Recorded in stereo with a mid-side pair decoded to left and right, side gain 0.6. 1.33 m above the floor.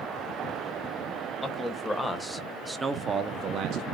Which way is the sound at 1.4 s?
15° left.